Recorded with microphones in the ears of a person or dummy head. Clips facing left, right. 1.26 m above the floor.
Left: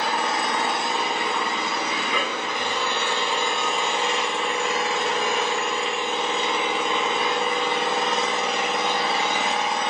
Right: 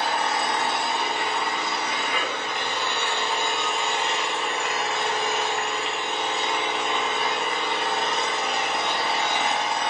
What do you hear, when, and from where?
0.0 s an engine running: 65° left (ahead or behind), 0.9 m